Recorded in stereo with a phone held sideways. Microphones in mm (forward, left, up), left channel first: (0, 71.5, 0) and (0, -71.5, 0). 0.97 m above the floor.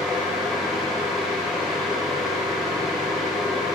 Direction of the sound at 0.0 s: Centre (ahead or behind).